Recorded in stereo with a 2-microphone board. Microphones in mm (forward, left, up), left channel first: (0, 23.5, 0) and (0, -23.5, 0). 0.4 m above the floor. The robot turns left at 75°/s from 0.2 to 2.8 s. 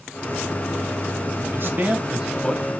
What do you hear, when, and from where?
1.5 s a man speaking: 55° right (ahead or behind), 2 m; by 2.6 s 15° left (ahead or behind), 2 m